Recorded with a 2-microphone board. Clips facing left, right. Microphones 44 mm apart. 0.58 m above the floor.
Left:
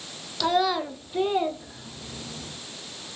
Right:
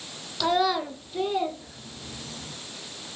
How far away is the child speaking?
About 0.6 m.